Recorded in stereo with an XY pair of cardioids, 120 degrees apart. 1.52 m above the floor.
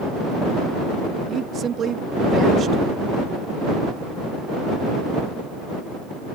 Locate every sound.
1.3 s a woman speaking: 45° right